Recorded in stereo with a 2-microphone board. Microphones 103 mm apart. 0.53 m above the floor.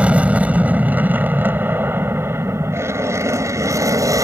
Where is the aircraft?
10° right (ahead or behind); by 4.2 s 35° right (ahead or behind).